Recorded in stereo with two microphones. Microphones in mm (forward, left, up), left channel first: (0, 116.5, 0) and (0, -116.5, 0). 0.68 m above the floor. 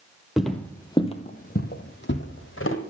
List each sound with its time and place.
0.4 s footsteps: centre (ahead or behind), 1.2 m; by 2.8 s 65° left (ahead or behind), 1.8 m